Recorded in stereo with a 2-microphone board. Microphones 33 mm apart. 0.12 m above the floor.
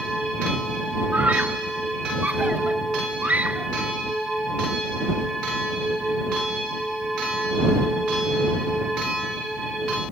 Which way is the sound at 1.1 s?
65° right (ahead or behind).